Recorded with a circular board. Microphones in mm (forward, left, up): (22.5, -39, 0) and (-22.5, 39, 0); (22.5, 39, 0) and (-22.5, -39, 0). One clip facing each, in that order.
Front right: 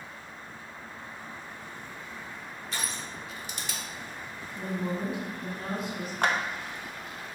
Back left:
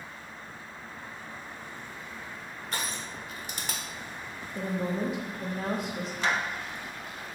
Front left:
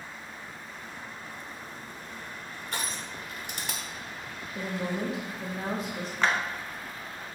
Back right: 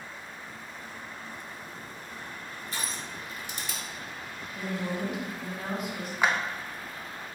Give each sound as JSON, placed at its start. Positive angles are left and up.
{"t": 2.7, "sound": "crushing", "azimuth_deg": 85, "distance_m": 1.2}
{"t": 4.5, "sound": "a woman speaking", "azimuth_deg": 120, "distance_m": 1.5}
{"t": 6.2, "sound": "a clap", "azimuth_deg": -40, "distance_m": 0.9}